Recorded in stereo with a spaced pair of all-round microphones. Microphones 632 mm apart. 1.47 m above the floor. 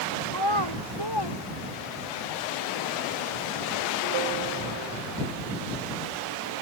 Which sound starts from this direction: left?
A child speaking, at 0.3 s.